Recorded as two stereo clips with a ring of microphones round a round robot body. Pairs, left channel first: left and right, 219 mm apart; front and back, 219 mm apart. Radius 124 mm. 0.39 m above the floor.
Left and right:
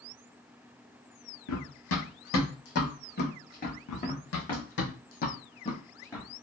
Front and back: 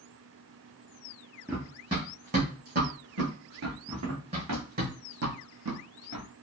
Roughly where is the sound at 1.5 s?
Left.